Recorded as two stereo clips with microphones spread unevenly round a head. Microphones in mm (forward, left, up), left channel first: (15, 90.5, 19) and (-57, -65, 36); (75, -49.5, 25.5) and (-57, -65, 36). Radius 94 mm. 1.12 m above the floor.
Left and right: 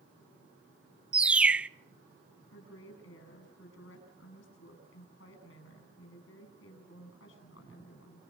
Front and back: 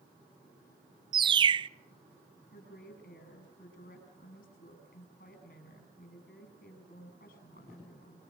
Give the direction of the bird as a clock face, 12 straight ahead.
7 o'clock.